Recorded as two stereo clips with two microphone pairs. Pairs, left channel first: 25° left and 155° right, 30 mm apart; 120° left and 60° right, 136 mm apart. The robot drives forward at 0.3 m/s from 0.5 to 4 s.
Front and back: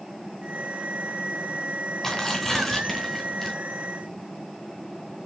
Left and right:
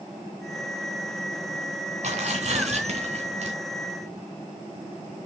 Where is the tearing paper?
50° right, 2 m; by 3.5 s 65° right, 1.9 m.